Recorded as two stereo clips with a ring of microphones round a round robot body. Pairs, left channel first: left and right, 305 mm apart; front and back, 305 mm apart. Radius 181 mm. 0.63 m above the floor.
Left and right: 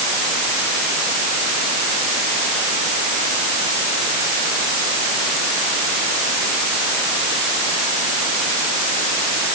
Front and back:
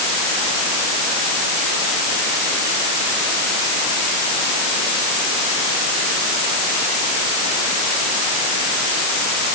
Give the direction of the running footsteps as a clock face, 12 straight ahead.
I don't hear running footsteps.